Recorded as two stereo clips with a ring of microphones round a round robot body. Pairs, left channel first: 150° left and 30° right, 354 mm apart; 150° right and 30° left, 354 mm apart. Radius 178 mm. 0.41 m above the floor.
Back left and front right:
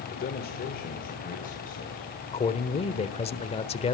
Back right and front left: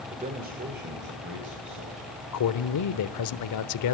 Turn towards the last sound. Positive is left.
turn(degrees=-140)